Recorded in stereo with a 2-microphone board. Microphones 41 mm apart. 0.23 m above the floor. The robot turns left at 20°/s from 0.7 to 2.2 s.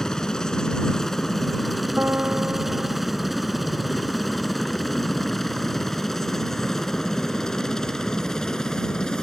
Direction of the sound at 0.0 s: 15° left (ahead or behind).